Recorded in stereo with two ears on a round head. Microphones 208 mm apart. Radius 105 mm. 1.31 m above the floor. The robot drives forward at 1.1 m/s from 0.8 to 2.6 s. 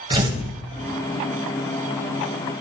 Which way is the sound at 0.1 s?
25° right (ahead or behind).